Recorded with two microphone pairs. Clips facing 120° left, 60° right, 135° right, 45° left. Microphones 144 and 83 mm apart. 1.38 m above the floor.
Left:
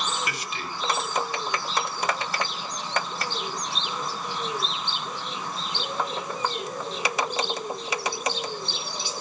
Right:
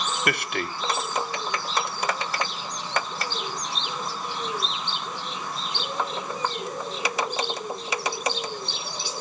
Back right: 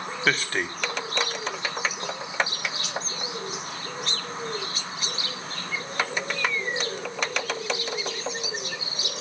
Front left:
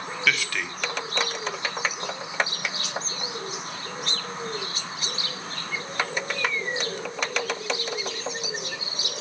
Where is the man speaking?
80° right, 0.7 m.